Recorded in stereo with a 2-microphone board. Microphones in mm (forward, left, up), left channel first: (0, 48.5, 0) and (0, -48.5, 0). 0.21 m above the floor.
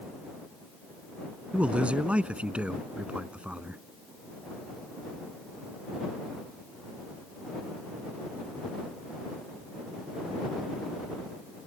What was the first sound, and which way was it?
A man speaking, 10° right (ahead or behind).